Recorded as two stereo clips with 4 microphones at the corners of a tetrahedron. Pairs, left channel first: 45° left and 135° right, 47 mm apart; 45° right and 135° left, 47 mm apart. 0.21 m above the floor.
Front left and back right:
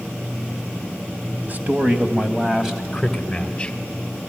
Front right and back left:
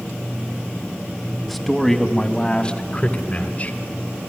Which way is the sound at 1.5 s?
135° right.